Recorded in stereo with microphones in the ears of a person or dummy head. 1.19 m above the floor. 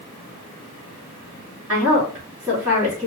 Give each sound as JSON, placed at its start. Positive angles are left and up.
{"t": 1.7, "sound": "a woman speaking", "side_deg": -15, "distance_m": 3.0}